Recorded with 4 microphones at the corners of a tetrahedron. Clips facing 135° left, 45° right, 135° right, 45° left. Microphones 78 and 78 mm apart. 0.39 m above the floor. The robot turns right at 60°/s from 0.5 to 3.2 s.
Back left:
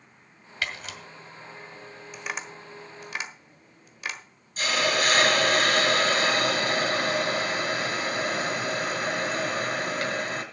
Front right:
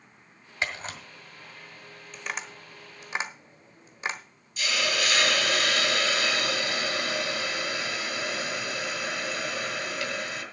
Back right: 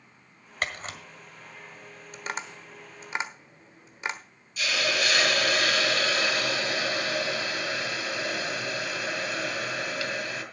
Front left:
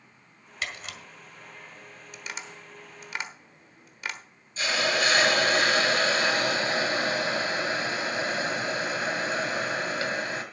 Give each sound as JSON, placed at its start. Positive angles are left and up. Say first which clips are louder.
{"t": 0.6, "sound": "a camera shutter", "louder": "front right 1 dB, back right 3 dB", "azimuth_deg": -105, "distance_m": 1.8}
{"t": 2.1, "sound": "tapping", "louder": "back left 1 dB, back right 5 dB", "azimuth_deg": -150, "distance_m": 1.2}
{"t": 4.6, "sound": "a hiss", "louder": "back left 4 dB, front left 2 dB", "azimuth_deg": 95, "distance_m": 2.0}